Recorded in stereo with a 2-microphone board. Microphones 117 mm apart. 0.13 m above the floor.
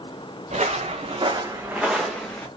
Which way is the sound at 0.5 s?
80° right.